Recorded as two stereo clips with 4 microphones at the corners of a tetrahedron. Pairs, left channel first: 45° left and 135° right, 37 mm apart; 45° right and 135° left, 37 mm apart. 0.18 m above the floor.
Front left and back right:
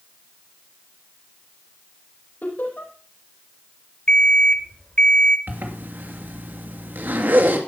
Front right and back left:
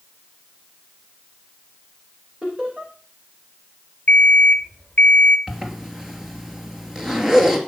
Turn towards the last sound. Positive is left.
turn(degrees=-150)